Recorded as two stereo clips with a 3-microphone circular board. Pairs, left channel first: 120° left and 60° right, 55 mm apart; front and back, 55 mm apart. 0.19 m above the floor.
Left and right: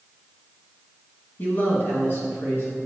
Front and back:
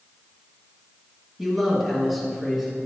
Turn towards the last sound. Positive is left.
turn(degrees=90)